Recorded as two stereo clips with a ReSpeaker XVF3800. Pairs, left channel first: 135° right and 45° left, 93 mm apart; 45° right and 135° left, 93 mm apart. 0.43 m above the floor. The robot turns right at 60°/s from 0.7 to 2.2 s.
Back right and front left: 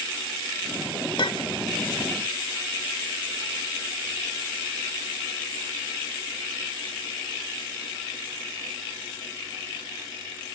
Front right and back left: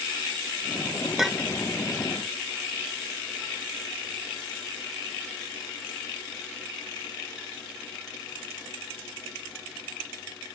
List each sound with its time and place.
1.2 s a clink: 140° right, 0.9 m; by 1.6 s 120° right, 0.9 m